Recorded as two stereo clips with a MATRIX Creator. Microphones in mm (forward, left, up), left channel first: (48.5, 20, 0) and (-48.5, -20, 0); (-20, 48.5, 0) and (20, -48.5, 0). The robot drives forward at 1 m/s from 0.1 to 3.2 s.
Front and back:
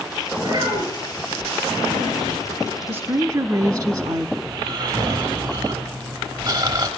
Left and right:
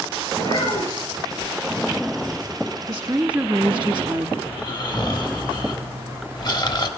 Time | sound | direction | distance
0.4 | a child speaking | 155° left | 5.5 m
2.9 | a woman speaking | 105° right | 0.8 m
4.5 | snoring | 160° left | 1.3 m